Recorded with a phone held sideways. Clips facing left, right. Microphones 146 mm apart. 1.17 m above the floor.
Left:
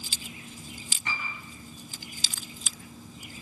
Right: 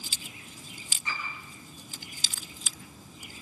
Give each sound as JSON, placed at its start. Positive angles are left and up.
{"t": 1.1, "sound": "a piano", "side_deg": 75, "distance_m": 6.5}